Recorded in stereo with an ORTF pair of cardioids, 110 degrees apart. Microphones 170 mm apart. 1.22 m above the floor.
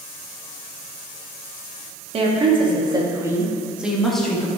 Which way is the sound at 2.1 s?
40° right.